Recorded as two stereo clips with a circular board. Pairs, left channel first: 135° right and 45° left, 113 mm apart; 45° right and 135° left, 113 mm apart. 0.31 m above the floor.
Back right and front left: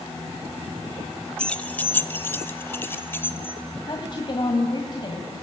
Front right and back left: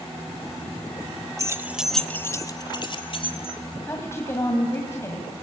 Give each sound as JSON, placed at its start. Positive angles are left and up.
{"t": 1.4, "sound": "keys jangling", "azimuth_deg": 150, "distance_m": 1.0}
{"t": 3.9, "sound": "a woman speaking", "azimuth_deg": -105, "distance_m": 1.9}